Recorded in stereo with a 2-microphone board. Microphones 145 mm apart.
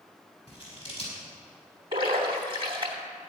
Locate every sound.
0.5 s scissors: 40° left (ahead or behind), 5 m
1.9 s a splash: 35° right (ahead or behind), 2.5 m